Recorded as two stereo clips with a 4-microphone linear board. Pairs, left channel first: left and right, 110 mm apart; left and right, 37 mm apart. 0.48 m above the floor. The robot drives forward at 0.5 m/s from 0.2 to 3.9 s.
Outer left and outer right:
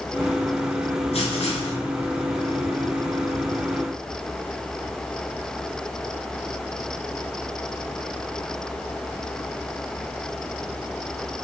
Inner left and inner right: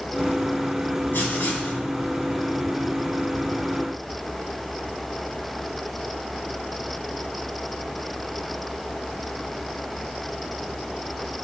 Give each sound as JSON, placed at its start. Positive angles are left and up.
{"t": 1.1, "sound": "writing", "side_deg": 80, "distance_m": 2.5}